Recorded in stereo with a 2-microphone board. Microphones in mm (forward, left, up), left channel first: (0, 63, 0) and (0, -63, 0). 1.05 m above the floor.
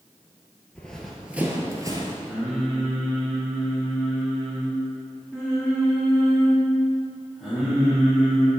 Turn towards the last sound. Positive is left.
turn(degrees=5)  # may be behind; listen again after turning